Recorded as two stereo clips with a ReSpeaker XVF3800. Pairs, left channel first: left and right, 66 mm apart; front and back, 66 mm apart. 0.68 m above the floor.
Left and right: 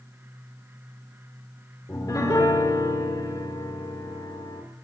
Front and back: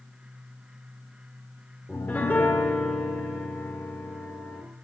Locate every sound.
1.9 s a piano: 65° left, 1.8 m